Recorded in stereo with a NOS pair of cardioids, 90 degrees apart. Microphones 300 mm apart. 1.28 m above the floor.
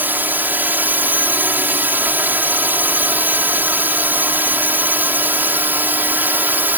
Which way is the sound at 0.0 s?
5° right.